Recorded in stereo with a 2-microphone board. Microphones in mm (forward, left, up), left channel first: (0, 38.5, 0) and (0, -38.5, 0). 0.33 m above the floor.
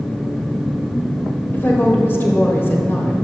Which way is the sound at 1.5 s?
30° left (ahead or behind).